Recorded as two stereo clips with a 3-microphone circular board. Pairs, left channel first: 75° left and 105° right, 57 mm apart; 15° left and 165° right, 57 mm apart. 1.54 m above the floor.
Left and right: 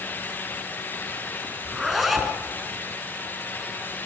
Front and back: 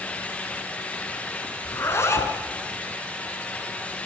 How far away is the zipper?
About 3.5 m.